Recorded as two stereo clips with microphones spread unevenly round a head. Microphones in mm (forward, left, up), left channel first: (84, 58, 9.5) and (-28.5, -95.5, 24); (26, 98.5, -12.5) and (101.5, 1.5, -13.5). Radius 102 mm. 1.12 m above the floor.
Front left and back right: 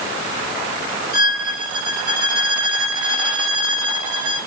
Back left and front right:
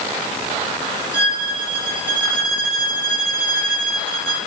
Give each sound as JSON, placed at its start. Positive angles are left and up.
{"t": 1.1, "sound": "a violin", "azimuth_deg": -135, "distance_m": 1.6}